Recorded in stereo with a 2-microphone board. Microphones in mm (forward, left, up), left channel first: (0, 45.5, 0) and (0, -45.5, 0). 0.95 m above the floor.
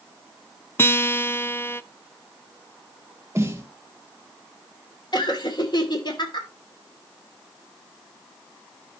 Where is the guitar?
25° left (ahead or behind), 0.5 m.